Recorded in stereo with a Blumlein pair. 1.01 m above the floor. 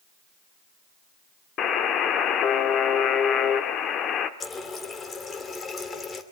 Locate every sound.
1.6 s a buzzer: 30° left, 1.3 m
4.4 s a running tap: 20° left, 2.0 m